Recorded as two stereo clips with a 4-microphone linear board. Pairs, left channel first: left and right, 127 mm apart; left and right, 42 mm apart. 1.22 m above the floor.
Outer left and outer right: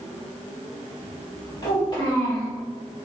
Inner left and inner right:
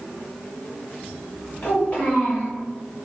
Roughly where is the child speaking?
Left.